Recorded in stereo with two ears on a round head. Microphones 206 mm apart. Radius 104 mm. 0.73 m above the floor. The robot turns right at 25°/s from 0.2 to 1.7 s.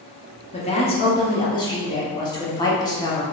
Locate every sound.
0.5 s a woman speaking: 30° left (ahead or behind), 1.0 m; by 3.2 s 20° left (ahead or behind), 1.0 m